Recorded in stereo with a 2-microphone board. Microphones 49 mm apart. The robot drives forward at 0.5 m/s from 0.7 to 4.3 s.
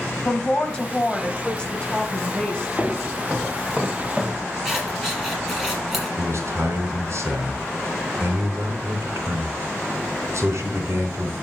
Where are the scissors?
5° right (ahead or behind), 7 m.